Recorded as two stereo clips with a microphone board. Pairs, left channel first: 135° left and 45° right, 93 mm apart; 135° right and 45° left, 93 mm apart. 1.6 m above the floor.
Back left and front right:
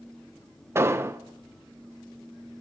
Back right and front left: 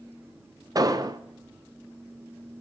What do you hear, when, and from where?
0.8 s an explosion: 10° left, 0.5 m